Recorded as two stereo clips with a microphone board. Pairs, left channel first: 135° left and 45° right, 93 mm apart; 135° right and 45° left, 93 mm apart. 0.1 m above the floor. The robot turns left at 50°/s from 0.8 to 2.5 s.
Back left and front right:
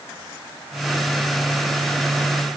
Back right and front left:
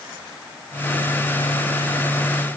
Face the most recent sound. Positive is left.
No sound to turn to.